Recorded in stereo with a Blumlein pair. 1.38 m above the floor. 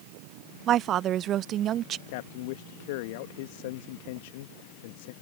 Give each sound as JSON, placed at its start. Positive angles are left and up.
{"t": 0.7, "sound": "a woman speaking", "azimuth_deg": -30}
{"t": 2.1, "sound": "a man speaking", "azimuth_deg": 50}